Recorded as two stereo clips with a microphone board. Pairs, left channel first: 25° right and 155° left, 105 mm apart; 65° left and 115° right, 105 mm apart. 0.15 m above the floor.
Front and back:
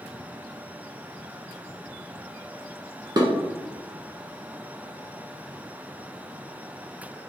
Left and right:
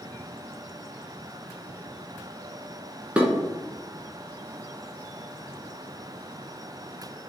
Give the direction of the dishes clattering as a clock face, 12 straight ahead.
6 o'clock.